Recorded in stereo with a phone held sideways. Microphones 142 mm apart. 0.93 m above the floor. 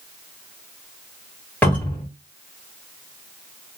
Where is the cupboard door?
10° left (ahead or behind), 2 m.